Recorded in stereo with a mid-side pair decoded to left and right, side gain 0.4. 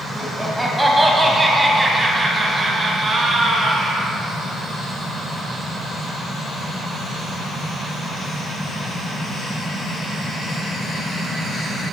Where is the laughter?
Straight ahead, 1.5 m; by 4.1 s 45° right, 3 m.